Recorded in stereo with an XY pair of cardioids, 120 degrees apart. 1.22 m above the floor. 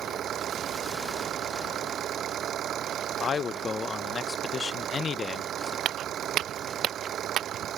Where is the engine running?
50° right.